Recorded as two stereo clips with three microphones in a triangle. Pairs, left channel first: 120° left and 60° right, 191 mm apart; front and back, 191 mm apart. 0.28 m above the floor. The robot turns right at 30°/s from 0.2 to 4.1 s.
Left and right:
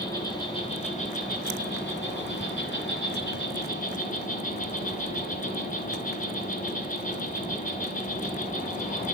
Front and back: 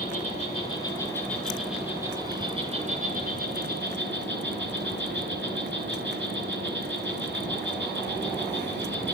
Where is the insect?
50° left, 7 m; by 9.1 s 165° left, 7 m.